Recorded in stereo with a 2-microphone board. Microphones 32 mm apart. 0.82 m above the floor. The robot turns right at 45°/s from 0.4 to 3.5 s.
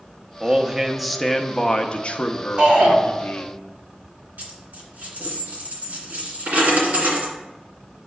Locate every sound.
0.4 s a man speaking: 30° right, 0.6 m; by 3.6 s 110° left, 0.6 m
2.6 s a shout: 55° right (ahead or behind), 3 m; by 3.0 s 70° right (ahead or behind), 3 m
4.4 s a dropped coin: 70° right (ahead or behind), 2.5 m